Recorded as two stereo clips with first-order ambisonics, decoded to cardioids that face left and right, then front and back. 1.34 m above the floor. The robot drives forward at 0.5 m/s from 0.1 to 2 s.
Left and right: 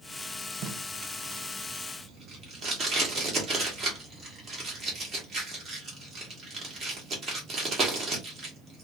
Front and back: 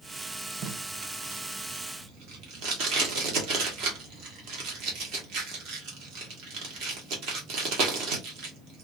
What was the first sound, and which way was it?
Tape being pulled, 130° right.